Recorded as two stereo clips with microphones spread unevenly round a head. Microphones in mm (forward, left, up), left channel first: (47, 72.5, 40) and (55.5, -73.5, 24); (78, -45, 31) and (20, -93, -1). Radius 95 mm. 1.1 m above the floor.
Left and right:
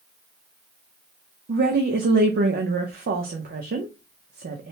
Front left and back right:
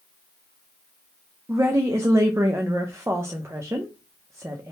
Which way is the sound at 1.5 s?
85° right.